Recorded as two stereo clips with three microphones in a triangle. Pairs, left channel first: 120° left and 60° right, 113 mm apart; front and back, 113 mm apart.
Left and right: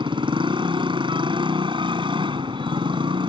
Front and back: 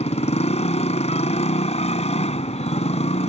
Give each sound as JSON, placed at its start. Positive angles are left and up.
{"t": 0.0, "sound": "a motorcycle", "azimuth_deg": -15}